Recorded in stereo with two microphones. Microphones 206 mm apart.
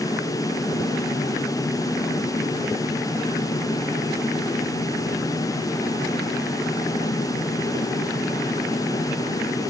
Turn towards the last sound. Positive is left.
No sound to turn to.